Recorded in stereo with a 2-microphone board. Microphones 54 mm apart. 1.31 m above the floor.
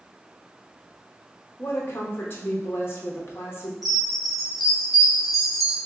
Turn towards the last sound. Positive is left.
turn(degrees=0)  # may be behind; listen again after turning